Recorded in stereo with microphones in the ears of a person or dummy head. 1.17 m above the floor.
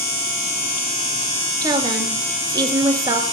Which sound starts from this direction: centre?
A woman speaking, at 1.6 s.